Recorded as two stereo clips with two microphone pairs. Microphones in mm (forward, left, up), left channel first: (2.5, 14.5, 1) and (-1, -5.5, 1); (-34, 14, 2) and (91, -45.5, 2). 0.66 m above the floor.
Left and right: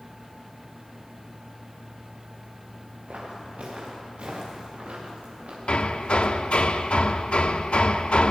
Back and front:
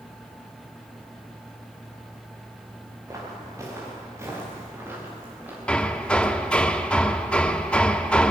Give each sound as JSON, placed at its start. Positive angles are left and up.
{"t": 3.1, "sound": "footsteps", "azimuth_deg": -90, "distance_m": 6.5}
{"t": 5.7, "sound": "hammering", "azimuth_deg": 70, "distance_m": 0.8}